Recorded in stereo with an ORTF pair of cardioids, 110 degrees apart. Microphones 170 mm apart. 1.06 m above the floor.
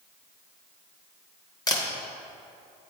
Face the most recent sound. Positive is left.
turn(degrees=25)